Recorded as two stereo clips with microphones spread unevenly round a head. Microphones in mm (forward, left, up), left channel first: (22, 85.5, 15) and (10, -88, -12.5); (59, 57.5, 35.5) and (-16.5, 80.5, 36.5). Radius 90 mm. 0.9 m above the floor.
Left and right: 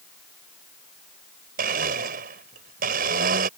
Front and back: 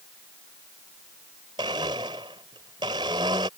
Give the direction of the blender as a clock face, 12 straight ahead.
5 o'clock.